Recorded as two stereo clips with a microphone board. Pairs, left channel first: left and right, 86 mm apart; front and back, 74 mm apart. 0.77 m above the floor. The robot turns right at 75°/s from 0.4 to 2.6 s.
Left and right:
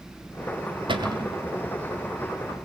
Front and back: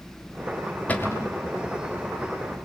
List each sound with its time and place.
0.9 s a cupboard door: 70° right, 2.5 m; by 1.4 s 35° right, 2.5 m